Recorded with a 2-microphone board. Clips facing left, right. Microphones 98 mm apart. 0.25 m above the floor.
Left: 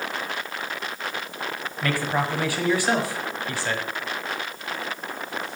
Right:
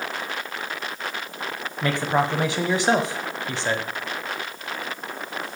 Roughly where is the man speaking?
Right.